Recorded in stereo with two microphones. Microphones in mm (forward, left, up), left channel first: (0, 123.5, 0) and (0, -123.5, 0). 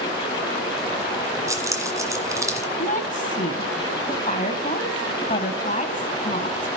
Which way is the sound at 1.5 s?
15° right (ahead or behind).